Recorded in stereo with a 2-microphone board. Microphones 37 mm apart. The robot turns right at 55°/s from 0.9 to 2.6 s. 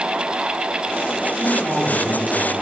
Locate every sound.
1.3 s a man speaking: 75° right, 4.5 m; by 2.5 s 10° right, 4.5 m